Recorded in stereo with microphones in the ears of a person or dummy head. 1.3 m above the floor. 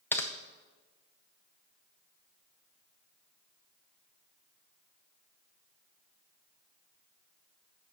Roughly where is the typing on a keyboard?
Centre.